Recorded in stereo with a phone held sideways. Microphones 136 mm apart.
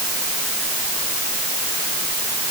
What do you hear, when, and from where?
Only background noise.